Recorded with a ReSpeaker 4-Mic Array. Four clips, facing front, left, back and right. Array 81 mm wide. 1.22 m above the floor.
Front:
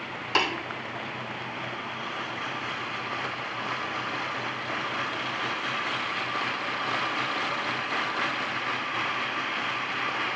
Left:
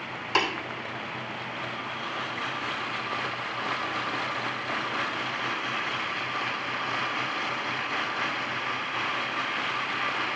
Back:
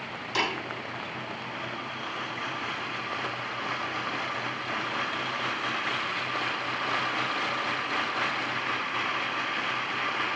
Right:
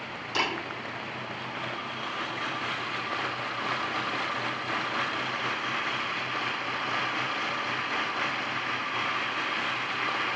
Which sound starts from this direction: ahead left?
Tapping, at 0.3 s.